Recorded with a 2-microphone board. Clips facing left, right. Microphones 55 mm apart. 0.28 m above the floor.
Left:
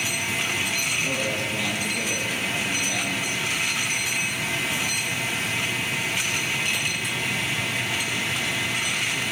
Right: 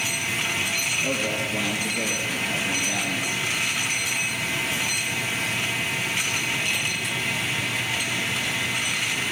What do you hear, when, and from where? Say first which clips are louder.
1.0 s a man speaking: even; 15° right (ahead or behind), 5 m